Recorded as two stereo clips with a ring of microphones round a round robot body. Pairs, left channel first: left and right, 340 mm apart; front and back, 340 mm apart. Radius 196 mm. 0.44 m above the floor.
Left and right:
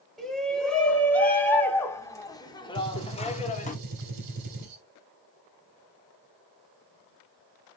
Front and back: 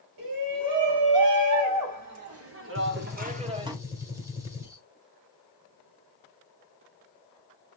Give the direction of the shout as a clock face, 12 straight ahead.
6 o'clock.